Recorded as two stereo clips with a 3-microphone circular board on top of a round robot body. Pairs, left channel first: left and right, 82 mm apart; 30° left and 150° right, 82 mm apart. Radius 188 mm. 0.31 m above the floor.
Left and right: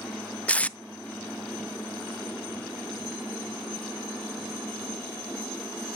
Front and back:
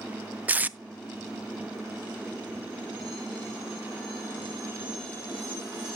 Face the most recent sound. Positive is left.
turn(degrees=155)